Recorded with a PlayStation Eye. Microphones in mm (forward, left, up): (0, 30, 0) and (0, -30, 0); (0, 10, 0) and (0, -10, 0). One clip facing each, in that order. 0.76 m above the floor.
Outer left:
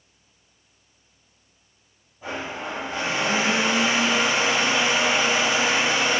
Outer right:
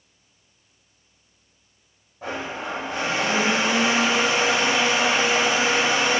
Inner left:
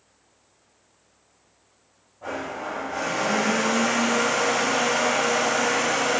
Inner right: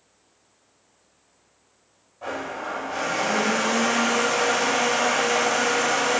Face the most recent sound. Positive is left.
turn(degrees=-75)  # may be behind; listen again after turning